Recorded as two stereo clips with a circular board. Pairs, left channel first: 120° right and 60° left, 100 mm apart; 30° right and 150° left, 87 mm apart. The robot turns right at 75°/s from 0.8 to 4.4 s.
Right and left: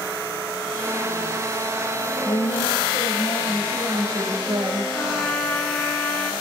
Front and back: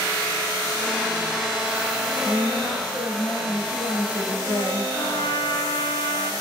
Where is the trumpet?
45° right, 2.5 m.